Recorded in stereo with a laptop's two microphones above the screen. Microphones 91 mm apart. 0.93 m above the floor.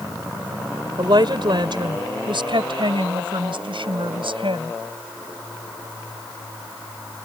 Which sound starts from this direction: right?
A woman speaking, at 1.0 s.